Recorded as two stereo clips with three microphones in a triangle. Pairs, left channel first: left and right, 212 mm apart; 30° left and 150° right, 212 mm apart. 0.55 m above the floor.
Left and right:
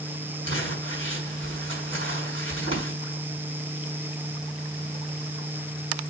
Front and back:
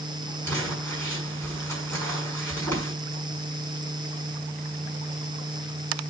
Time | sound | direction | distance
0.5 | crumpling | 110° left | 6 m